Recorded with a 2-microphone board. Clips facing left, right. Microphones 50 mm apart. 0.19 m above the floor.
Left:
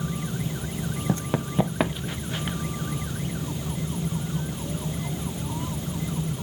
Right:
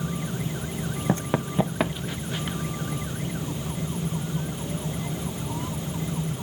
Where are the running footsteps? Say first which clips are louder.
Right 2 dB; 40° right (ahead or behind), 0.6 m; by 2.6 s 20° left (ahead or behind), 2 m.